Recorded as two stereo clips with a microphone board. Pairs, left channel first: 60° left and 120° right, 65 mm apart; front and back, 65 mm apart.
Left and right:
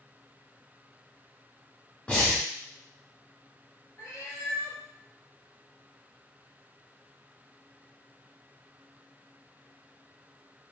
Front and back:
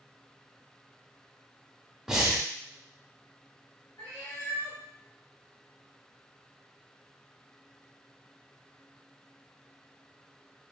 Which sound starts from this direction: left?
Breathing, at 2.1 s.